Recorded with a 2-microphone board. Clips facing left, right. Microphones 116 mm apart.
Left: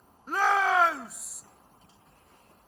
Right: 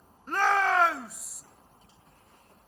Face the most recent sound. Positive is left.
turn(degrees=5)  # may be behind; listen again after turning